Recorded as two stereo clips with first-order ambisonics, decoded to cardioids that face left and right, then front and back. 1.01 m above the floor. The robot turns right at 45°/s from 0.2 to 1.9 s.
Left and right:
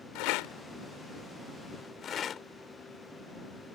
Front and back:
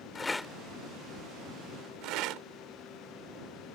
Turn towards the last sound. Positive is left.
turn(degrees=150)